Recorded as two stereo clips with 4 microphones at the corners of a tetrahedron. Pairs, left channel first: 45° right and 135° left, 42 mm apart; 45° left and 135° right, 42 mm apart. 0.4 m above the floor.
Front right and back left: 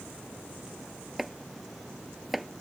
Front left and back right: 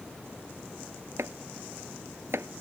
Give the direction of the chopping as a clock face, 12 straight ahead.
5 o'clock.